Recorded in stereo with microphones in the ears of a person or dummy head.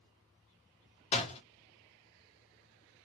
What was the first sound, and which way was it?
A door slam, 30° left (ahead or behind).